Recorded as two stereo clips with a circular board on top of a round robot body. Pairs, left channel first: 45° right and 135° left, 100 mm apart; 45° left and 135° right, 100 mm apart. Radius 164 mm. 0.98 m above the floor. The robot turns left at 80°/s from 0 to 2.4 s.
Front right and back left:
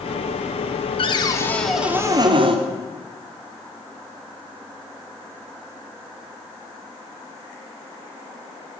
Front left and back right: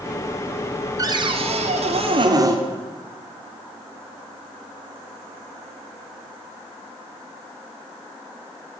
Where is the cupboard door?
80° right, 2 m; by 2.6 s 170° left, 2 m.